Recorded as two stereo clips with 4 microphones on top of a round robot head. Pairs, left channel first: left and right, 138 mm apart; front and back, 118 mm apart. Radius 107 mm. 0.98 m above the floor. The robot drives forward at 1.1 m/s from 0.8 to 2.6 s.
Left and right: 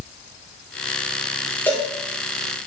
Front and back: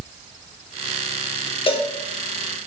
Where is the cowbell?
15° left, 1.2 m; by 1.9 s 20° left, 1.1 m.